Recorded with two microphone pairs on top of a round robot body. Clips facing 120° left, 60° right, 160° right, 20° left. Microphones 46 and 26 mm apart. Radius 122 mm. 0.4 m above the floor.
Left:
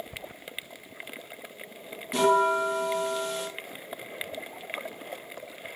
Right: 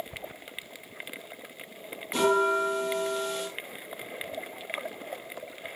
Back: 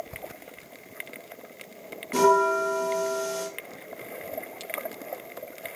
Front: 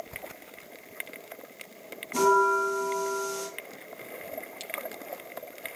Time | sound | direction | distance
2.1 | a bell | 155° right | 2.0 m